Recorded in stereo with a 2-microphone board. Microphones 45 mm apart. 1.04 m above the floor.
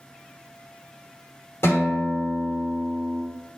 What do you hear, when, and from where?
1.6 s a guitar: 75° left (ahead or behind), 3 m